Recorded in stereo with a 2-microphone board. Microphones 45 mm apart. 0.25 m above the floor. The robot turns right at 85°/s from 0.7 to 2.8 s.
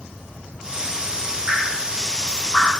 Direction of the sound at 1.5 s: 60° right (ahead or behind).